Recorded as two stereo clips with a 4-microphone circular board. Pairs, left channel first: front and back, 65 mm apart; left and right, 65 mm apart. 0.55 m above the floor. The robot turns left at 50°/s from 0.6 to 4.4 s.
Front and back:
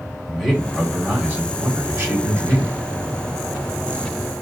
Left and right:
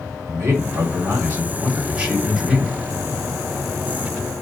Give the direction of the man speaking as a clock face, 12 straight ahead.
3 o'clock.